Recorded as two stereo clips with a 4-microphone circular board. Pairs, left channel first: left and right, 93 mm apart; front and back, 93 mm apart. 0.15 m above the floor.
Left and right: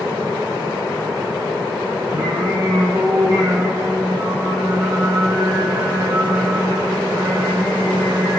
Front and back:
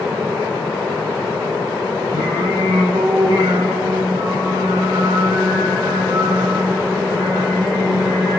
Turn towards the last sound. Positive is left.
turn(degrees=-150)